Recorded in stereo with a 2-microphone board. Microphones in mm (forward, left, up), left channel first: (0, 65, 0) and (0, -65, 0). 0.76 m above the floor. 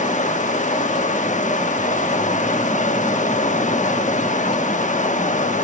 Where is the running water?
70° left (ahead or behind), 0.9 m.